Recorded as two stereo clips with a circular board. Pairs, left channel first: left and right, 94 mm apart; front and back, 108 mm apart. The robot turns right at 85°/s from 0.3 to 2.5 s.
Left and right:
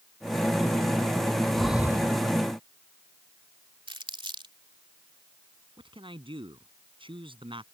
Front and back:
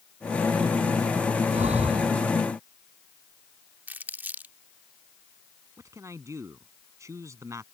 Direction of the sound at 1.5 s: 170° left.